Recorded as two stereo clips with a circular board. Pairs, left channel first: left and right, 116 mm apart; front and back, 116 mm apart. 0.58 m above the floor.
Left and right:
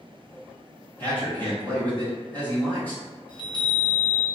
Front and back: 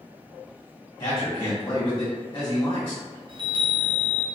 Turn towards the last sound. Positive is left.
turn(degrees=135)